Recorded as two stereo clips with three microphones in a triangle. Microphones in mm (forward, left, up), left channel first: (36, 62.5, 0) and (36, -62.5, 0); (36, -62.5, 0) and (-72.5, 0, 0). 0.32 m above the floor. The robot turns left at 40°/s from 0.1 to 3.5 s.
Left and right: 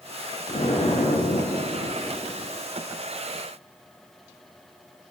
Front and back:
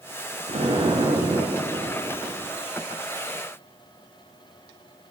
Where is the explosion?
120° left, 1.9 m; by 2.5 s 40° left, 1.9 m.